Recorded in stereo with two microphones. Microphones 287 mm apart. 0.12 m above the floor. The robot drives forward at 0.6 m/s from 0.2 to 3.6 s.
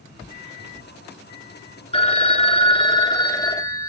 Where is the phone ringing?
20° left (ahead or behind), 0.7 m; by 3.9 s 10° left (ahead or behind), 1.1 m.